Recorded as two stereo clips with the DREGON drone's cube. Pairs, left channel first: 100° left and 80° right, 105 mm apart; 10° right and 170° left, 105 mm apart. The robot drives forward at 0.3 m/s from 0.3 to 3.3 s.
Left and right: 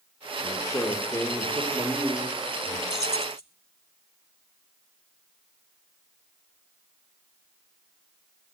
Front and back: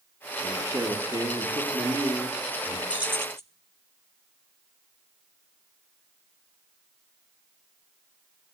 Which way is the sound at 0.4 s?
125° left.